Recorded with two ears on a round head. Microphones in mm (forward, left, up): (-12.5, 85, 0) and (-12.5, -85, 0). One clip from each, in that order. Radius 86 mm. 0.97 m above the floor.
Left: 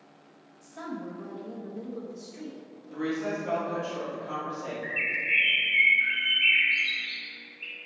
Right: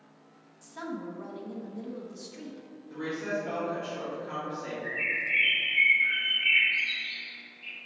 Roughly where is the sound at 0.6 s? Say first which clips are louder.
Even; right.